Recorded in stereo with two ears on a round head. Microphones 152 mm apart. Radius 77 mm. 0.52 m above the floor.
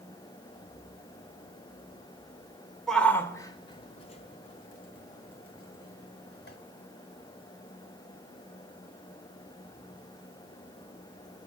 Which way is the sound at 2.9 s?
Centre (ahead or behind).